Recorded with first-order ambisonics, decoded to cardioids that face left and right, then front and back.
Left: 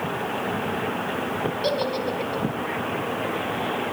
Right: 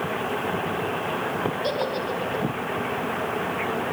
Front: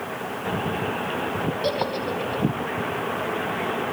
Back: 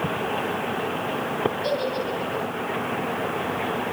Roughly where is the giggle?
Ahead left.